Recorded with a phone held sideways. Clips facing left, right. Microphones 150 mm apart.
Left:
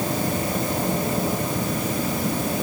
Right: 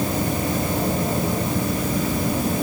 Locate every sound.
Only background noise.